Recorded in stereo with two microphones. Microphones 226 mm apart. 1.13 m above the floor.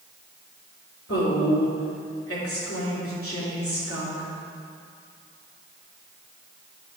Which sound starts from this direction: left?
A woman speaking, at 1.1 s.